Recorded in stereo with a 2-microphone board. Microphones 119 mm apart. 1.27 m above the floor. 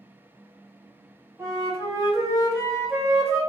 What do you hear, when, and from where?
1.4 s a flute: 20° right (ahead or behind), 0.8 m